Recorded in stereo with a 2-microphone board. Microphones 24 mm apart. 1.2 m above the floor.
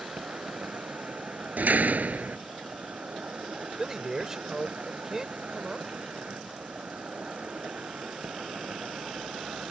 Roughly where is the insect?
Right.